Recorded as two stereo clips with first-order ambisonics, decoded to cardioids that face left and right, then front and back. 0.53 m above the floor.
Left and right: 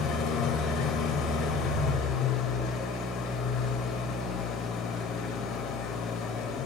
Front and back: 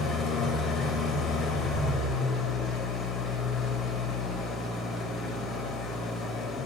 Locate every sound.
0.0 s an engine running: 50° left, 2 m